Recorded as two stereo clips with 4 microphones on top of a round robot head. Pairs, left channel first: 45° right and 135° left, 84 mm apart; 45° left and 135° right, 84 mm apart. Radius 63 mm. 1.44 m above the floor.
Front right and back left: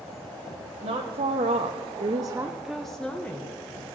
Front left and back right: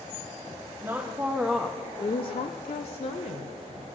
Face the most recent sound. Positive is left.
turn(degrees=25)